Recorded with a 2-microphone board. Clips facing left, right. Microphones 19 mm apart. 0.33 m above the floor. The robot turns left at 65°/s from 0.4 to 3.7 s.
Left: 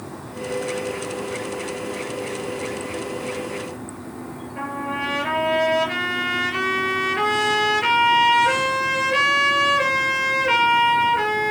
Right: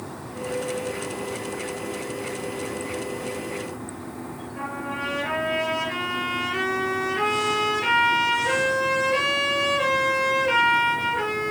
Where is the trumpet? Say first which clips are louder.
Left 4 dB; 25° left (ahead or behind), 4.5 m.